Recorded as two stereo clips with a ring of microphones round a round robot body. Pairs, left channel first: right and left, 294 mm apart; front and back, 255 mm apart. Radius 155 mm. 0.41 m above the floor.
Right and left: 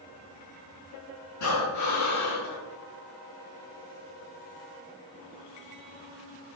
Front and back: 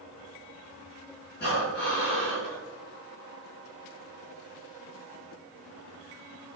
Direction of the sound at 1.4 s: 60° right.